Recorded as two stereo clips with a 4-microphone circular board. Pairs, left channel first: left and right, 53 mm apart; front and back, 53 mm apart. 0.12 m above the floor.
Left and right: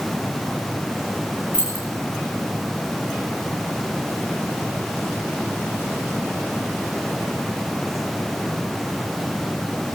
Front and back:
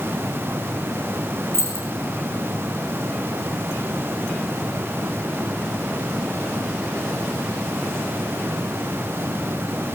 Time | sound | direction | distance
1.5 | keys jangling | 145° right | 5.5 m